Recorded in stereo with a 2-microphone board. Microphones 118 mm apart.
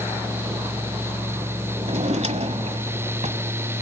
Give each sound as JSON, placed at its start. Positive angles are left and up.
{"t": 1.8, "sound": "a drawer", "side_deg": -65, "distance_m": 1.2}